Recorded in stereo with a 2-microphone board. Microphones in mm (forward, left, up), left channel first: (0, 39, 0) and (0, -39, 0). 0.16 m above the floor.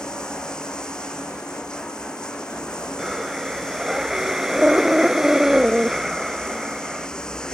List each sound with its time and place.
0.0 s running water: 10° left (ahead or behind)
3.0 s breathing: 5° right (ahead or behind)